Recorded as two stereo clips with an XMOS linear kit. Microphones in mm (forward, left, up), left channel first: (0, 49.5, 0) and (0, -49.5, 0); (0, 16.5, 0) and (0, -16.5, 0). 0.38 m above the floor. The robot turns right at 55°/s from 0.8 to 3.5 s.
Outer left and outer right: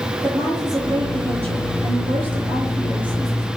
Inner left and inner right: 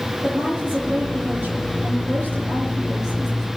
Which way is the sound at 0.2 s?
135° right.